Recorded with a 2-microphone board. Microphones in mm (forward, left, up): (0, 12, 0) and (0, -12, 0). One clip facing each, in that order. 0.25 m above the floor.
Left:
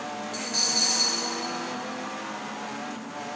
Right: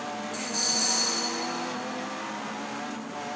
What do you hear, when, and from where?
0.3 s a dropped coin: 35° left (ahead or behind), 4.5 m